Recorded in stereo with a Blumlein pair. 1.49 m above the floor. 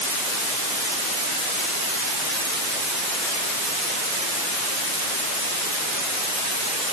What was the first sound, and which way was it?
Only background noise.